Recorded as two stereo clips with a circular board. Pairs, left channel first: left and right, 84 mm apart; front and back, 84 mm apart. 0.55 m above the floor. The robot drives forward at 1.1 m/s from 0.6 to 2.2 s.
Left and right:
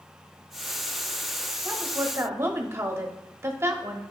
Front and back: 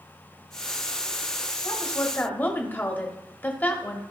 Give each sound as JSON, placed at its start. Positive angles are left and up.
{"t": 1.6, "sound": "a woman speaking", "azimuth_deg": -30, "distance_m": 1.4}